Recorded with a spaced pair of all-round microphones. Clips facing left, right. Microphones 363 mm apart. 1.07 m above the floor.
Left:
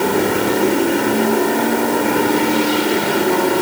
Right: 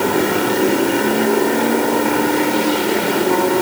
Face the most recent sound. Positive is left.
No sound to turn to.